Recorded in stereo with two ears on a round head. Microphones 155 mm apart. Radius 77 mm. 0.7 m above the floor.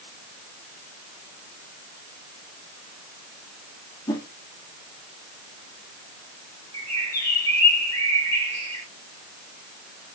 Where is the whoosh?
20° left (ahead or behind), 1.6 m.